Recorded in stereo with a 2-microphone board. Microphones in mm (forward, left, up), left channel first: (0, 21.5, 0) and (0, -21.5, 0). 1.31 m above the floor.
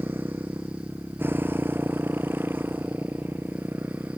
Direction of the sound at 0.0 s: 65° right (ahead or behind).